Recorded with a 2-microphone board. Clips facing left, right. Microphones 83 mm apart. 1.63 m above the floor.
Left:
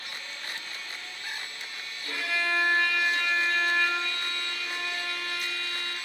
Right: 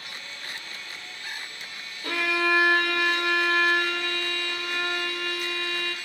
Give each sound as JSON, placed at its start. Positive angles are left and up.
{"t": 2.0, "sound": "a violin", "side_deg": -70, "distance_m": 0.5}